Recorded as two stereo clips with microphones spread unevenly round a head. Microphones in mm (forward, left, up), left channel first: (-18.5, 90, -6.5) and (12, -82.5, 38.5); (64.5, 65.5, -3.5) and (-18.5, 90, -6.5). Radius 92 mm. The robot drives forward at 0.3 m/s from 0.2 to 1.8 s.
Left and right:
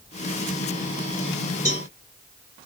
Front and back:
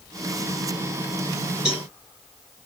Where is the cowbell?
110° right, 1.5 m; by 1.9 s 115° right, 1.5 m.